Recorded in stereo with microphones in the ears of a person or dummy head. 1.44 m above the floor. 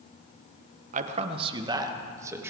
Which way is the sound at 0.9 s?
45° right (ahead or behind).